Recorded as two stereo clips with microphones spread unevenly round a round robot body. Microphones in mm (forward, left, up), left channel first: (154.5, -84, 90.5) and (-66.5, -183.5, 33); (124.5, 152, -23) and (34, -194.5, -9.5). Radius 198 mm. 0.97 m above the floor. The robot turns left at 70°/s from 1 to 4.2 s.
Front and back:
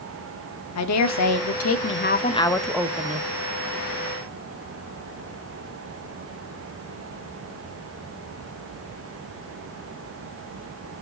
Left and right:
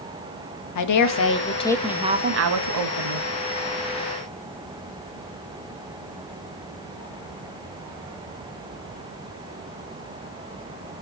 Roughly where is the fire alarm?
No fire alarm in this recording.